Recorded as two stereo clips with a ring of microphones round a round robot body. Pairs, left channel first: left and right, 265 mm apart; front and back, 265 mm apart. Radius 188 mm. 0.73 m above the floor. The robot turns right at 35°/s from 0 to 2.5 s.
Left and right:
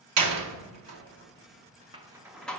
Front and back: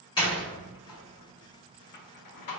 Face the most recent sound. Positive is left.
turn(degrees=5)